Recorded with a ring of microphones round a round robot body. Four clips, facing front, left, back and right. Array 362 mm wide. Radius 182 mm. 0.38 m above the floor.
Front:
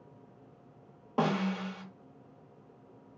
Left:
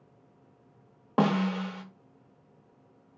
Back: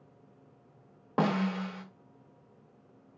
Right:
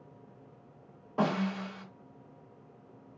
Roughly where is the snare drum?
Left.